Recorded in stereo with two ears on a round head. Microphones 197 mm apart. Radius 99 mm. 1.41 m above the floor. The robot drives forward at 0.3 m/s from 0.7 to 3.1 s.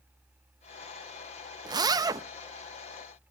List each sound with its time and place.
1.6 s a zipper: 20° right (ahead or behind), 0.7 m; by 2.2 s 15° right (ahead or behind), 0.8 m